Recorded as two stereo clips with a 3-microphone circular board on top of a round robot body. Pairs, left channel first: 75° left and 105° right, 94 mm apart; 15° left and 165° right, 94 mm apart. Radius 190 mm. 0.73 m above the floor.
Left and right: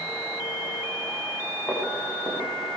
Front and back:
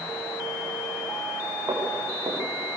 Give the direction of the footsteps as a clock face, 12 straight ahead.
7 o'clock.